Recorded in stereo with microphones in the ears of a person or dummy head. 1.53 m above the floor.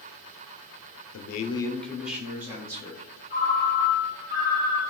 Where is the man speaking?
70° left (ahead or behind), 0.7 m; by 3.1 s 20° right (ahead or behind), 2.5 m.